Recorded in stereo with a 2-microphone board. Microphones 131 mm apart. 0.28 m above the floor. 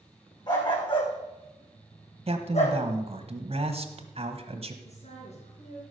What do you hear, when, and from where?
0.5 s a dog barking: 35° left (ahead or behind), 5.5 m; by 2.8 s 60° left (ahead or behind), 4 m
2.3 s a man speaking: 50° right (ahead or behind), 1.4 m
4.8 s a woman speaking: 60° left (ahead or behind), 4 m